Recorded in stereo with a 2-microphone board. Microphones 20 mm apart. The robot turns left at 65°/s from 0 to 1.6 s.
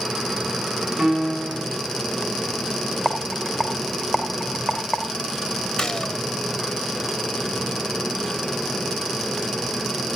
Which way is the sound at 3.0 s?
5° left (ahead or behind).